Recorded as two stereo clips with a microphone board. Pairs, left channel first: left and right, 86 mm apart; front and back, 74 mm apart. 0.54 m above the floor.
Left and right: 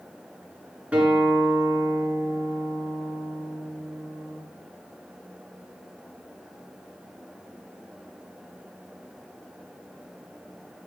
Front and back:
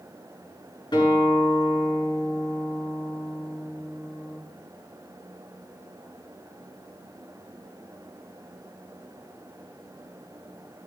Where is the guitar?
15° right, 8 m.